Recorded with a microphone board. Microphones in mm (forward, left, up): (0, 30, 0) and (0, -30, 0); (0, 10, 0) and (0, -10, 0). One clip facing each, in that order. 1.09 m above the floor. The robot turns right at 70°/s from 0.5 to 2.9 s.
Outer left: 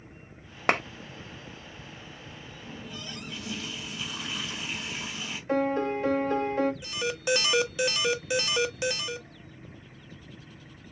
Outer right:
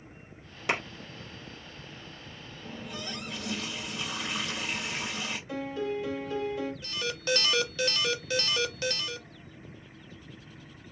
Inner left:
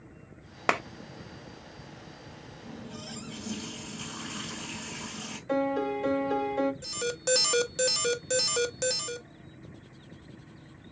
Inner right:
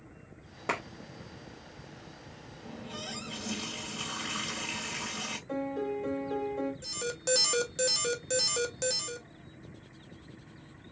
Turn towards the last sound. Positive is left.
turn(degrees=15)  # may be behind; listen again after turning